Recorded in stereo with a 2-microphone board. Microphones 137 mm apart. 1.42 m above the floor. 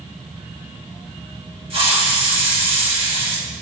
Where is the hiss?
45° right (ahead or behind), 3.5 m.